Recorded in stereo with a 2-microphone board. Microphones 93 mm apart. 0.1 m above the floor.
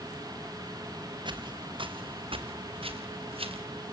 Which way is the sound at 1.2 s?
55° right (ahead or behind).